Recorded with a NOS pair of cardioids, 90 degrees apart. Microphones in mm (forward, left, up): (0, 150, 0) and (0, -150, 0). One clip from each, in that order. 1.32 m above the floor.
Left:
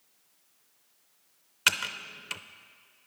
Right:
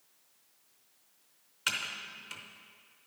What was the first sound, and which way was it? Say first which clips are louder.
Typing on a keyboard: left 7 dB; 40° left.